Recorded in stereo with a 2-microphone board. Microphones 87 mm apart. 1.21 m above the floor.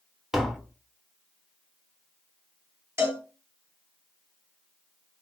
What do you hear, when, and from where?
0.3 s tapping: 5° right (ahead or behind), 0.6 m
3.0 s a cowbell: 30° right (ahead or behind), 1.1 m